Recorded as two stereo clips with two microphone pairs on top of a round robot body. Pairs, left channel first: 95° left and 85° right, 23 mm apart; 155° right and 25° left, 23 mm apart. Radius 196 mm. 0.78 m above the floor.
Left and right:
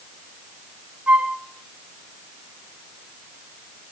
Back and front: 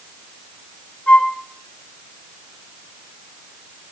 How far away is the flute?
About 0.6 m.